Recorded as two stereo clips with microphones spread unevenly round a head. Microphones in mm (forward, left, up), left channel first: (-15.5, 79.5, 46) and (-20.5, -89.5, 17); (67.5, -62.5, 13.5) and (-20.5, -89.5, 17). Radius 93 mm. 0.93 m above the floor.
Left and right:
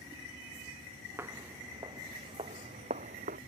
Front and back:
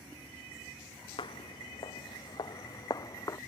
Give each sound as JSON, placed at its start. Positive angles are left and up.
{"t": 1.2, "sound": "footsteps", "azimuth_deg": -10}